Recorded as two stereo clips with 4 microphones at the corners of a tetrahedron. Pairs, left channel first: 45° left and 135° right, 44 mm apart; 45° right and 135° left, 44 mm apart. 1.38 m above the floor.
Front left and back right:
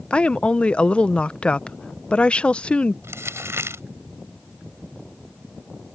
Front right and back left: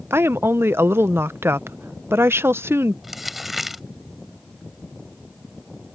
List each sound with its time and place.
0.1 s a woman speaking: 110° left
3.0 s crumpling: 140° right